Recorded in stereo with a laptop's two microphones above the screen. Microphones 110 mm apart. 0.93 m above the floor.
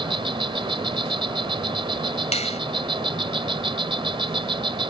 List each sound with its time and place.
0.0 s an insect: 50° right (ahead or behind)
2.3 s a finger snap: 85° left